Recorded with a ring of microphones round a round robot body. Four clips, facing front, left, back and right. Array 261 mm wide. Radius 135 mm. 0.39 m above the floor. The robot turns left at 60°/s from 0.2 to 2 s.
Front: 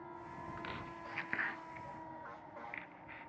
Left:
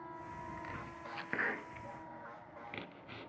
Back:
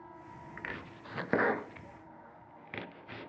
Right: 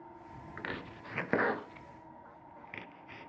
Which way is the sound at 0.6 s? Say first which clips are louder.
Right 3 dB, back 1 dB; 100° right.